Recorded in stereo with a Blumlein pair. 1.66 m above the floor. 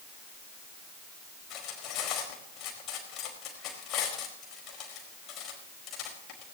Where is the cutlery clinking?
35° left, 4.5 m.